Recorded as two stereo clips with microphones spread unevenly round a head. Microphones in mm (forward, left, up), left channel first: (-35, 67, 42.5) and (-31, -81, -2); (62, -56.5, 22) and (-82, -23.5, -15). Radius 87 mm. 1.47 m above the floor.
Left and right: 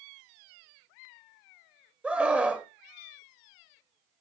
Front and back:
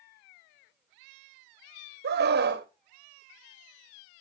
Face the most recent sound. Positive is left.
turn(degrees=-170)